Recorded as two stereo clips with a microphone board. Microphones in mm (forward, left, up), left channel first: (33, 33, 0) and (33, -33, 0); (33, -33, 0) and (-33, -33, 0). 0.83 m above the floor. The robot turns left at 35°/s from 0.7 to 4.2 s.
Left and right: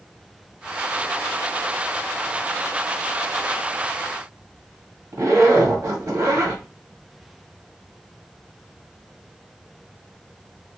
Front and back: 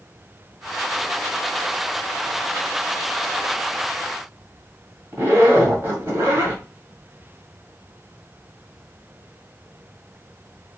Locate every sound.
5.1 s a zipper: 130° right, 2 m